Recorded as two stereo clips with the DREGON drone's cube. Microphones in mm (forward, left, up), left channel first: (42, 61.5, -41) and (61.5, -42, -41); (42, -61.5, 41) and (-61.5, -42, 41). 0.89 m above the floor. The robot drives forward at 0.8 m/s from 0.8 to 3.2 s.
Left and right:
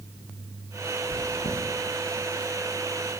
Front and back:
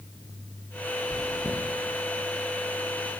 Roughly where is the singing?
No singing in this recording.